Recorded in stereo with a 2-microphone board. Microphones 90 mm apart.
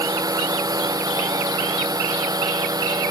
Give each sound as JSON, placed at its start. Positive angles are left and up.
{"t": 0.0, "sound": "a drone", "side_deg": -40}